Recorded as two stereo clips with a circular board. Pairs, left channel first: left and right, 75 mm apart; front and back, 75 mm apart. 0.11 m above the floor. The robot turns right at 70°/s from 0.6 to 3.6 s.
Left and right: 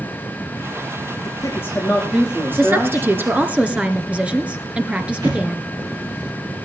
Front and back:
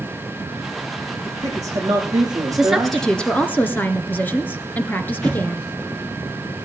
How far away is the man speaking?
About 5.5 m.